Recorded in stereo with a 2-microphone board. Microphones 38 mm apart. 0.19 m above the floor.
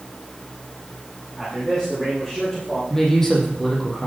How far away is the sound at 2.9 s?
About 5.5 m.